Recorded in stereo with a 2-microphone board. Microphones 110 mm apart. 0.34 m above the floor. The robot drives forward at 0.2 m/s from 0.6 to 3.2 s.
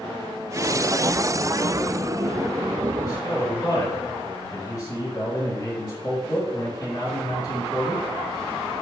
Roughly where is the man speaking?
Left.